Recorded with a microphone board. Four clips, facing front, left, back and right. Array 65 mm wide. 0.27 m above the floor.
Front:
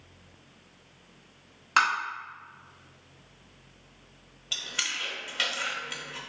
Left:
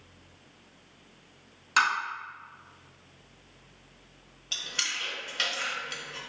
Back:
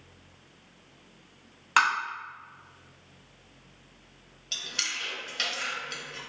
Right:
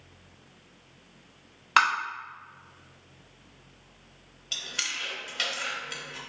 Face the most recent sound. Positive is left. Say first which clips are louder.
# even, front 1 dB
turn(degrees=0)